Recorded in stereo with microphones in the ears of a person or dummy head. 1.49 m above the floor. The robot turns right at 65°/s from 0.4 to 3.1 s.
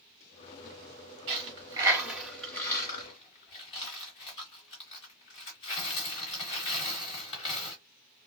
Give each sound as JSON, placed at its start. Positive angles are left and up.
{"t": 1.3, "sound": "a dropped coin", "side_deg": -35, "distance_m": 1.6}